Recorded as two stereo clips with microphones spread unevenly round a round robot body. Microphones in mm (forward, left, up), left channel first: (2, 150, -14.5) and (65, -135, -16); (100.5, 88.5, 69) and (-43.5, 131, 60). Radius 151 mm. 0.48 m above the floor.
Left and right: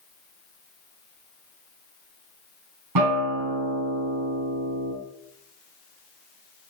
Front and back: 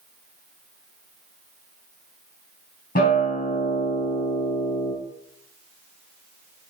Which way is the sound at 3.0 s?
60° right.